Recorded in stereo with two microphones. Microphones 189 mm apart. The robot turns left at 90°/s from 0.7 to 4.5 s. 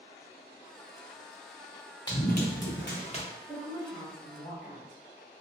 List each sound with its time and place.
2.1 s running footsteps: 20° left (ahead or behind), 0.9 m; by 3.2 s 25° left (ahead or behind), 1.2 m
3.5 s a woman speaking: 25° left (ahead or behind), 1.1 m; by 5.0 s 10° left (ahead or behind), 1.1 m